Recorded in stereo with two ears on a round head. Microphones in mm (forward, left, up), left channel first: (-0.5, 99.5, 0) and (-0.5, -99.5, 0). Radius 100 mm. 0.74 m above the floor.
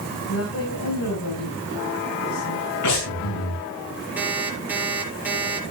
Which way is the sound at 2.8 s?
85° left.